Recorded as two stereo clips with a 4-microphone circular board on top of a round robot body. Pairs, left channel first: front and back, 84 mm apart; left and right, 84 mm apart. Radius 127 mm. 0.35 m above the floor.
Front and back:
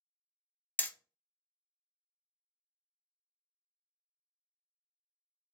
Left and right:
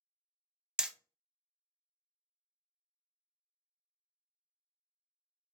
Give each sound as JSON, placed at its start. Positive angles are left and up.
{"t": 0.8, "sound": "hammering", "azimuth_deg": -20, "distance_m": 0.7}